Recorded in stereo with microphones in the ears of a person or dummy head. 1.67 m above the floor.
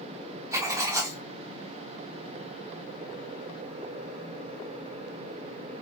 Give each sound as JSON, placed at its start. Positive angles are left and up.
{"t": 0.5, "sound": "writing", "side_deg": -15, "distance_m": 0.8}